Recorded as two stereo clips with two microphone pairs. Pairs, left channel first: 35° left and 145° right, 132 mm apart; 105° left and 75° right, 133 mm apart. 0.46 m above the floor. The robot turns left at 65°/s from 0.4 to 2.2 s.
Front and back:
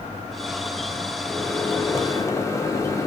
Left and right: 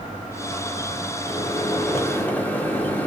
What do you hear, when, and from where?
1.3 s a microwave: 105° left, 0.6 m; by 3.1 s 45° left, 0.6 m